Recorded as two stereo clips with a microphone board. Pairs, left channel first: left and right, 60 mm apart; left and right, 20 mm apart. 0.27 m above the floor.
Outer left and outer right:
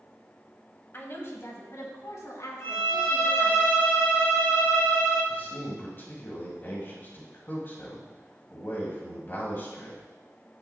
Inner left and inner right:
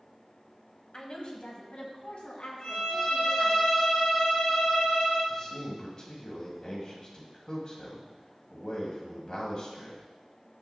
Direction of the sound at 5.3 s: 40° left (ahead or behind).